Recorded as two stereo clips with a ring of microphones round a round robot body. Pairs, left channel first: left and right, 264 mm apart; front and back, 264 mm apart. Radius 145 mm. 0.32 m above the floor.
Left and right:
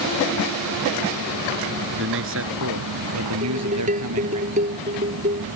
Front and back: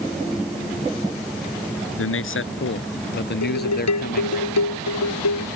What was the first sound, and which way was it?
A man speaking, 40° right.